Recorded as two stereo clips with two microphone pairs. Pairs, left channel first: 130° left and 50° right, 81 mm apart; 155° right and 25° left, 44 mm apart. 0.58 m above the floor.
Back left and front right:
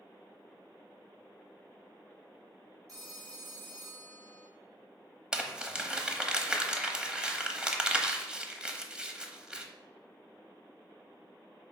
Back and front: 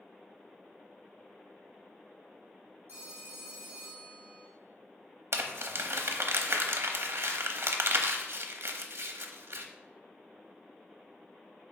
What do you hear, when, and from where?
2.9 s a phone ringing: straight ahead, 3.5 m
5.3 s crumpling: 30° left, 0.8 m